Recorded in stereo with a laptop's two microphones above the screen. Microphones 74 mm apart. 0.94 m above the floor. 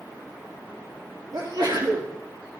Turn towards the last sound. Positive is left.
turn(degrees=-65)  # may be behind; listen again after turning